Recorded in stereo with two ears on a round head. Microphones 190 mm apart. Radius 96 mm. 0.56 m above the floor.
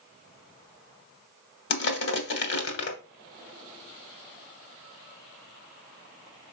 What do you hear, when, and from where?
1.7 s crushing: 55° left (ahead or behind), 1.3 m